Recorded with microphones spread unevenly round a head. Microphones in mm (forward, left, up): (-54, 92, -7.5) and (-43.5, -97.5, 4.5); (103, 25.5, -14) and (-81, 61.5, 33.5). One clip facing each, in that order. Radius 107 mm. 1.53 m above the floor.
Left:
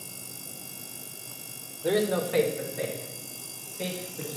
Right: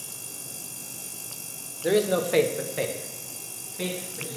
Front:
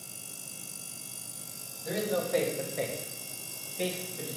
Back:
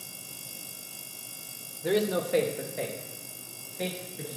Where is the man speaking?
160° right, 1.3 m; by 4.4 s 65° right, 3.5 m.